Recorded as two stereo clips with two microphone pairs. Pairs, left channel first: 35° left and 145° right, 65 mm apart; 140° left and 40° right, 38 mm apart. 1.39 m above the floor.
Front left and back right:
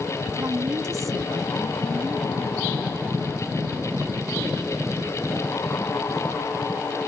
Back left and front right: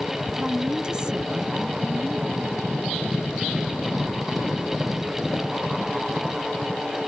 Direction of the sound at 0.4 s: 110° right.